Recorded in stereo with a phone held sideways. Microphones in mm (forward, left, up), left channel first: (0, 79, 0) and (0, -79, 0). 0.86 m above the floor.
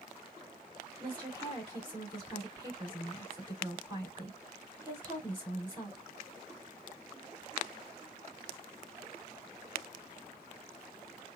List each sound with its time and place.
1.0 s a woman speaking: 30° right (ahead or behind), 3.5 m